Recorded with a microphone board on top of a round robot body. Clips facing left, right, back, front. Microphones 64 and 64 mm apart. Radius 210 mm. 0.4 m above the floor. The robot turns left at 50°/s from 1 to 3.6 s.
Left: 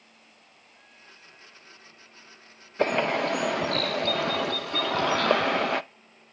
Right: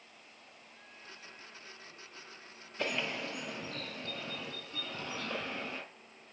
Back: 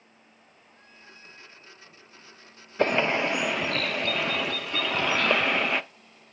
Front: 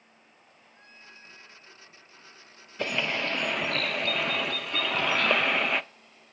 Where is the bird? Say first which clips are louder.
Left 12 dB, back 6 dB; 130° left, 0.5 m; by 5.8 s 90° left, 0.5 m.